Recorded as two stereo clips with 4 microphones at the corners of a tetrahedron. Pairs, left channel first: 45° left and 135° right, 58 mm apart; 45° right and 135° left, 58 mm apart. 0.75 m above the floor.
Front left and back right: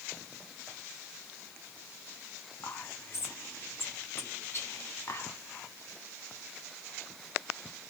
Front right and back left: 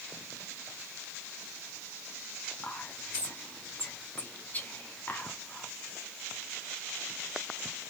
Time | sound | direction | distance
2.6 | whispering | 10° left | 1.4 m